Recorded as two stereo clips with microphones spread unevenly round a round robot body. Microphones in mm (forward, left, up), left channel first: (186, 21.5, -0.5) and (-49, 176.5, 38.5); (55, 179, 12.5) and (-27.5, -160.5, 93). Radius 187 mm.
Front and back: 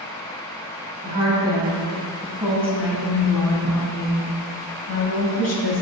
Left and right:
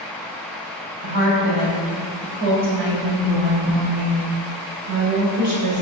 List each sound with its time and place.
1.0 s a woman speaking: 145° right, 3 m; by 5.8 s 50° right, 2.5 m